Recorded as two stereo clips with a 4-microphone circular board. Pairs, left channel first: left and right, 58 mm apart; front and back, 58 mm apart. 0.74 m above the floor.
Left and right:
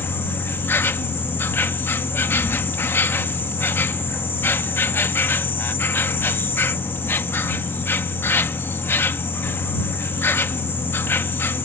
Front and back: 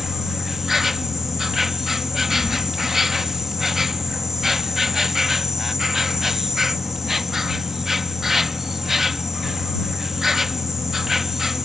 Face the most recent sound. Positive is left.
turn(degrees=95)